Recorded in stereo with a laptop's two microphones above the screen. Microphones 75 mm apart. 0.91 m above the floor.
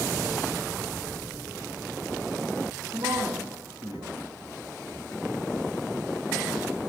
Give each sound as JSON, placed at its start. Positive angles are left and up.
{"t": 2.9, "sound": "a man speaking", "side_deg": -80, "distance_m": 4.0}